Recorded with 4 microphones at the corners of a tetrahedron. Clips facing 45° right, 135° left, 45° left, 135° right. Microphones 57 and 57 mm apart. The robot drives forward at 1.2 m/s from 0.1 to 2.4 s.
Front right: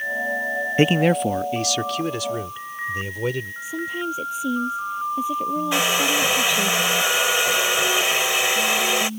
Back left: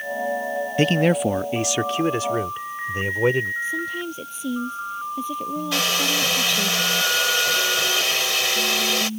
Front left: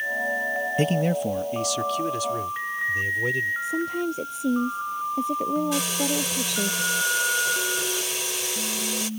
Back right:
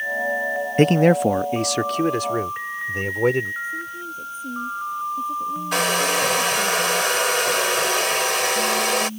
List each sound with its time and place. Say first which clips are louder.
0.8 s a man speaking: front right 1 dB, back right 10 dB; 105° right; by 3.5 s 165° right
3.6 s a woman speaking: even, front left 4 dB; 35° left
5.7 s a hair dryer: front right 1 dB, back right 5 dB; 115° right